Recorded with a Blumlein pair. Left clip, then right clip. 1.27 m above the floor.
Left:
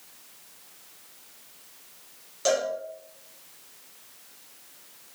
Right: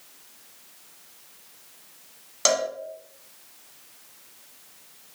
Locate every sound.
2.5 s a cowbell: 60° right, 1.0 m